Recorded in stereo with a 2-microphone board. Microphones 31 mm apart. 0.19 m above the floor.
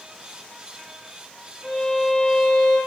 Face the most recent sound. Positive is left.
turn(degrees=5)  # may be behind; listen again after turning